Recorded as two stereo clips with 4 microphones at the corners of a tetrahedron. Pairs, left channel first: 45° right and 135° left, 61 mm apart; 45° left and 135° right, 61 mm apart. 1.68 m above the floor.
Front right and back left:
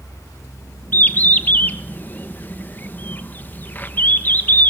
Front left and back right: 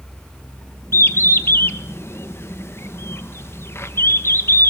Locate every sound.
0.9 s a bird: 10° left, 1.1 m